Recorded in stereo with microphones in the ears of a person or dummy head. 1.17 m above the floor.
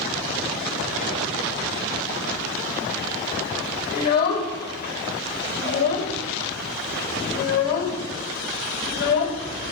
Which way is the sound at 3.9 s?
55° left (ahead or behind).